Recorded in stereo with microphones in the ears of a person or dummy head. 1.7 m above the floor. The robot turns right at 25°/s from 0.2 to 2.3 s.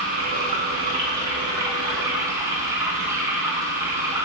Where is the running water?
25° right (ahead or behind), 1.0 m; by 4.3 s 15° right (ahead or behind), 1.0 m.